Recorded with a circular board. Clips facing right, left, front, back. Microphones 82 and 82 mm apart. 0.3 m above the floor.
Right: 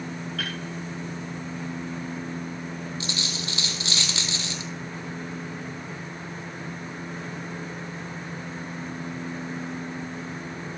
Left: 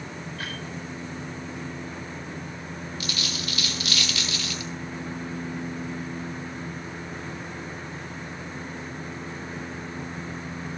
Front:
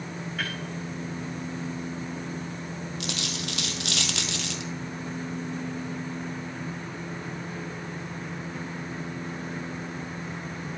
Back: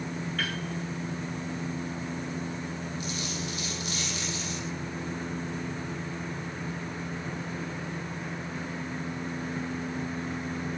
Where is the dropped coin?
25° right, 1.6 m.